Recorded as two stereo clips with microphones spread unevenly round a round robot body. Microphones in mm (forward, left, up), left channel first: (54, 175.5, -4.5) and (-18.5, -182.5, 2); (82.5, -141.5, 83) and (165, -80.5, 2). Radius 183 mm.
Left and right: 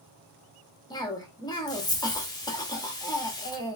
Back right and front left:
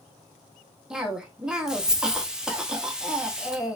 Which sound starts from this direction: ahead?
A cough, at 0.9 s.